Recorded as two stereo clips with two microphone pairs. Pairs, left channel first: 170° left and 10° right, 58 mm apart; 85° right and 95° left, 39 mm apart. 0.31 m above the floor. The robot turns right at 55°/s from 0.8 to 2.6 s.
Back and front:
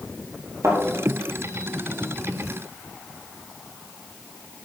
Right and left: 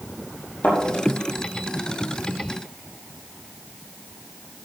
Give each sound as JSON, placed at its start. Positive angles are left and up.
{"t": 0.6, "sound": "a thud", "azimuth_deg": -35, "distance_m": 4.5}